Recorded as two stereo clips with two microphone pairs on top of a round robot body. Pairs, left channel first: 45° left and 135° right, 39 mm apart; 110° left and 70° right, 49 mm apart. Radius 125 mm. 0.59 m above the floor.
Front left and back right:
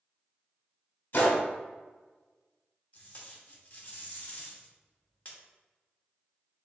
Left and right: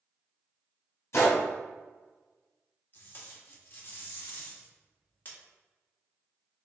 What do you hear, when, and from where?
1.1 s a gunshot: 80° left, 1.7 m
2.9 s tape being pulled: 70° left, 1.7 m